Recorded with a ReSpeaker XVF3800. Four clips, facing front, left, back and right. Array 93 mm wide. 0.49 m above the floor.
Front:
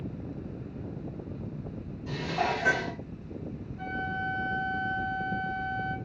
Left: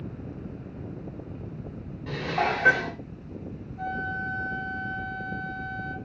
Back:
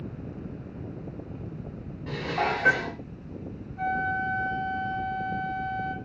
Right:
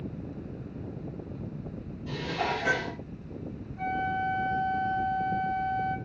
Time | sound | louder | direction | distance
2.1 | dishes clattering | left 4 dB, back 2 dB | 130° left | 1.3 m
3.8 | a flute | right 2 dB, back 6 dB | 155° right | 2 m